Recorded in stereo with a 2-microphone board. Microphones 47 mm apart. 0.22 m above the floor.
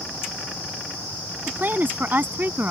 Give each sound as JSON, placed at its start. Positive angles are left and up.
{"t": 1.5, "sound": "a woman speaking", "side_deg": -45}